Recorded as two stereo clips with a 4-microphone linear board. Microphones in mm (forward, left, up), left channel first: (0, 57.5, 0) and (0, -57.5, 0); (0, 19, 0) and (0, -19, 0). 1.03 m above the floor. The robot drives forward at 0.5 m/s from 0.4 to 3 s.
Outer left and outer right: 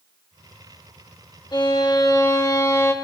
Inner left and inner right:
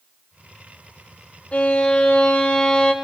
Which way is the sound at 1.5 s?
40° left (ahead or behind).